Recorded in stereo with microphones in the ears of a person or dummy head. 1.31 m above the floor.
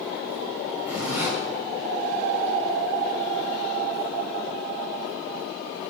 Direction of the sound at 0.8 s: 10° right (ahead or behind).